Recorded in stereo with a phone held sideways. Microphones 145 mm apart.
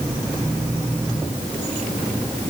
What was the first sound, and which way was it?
Only background noise.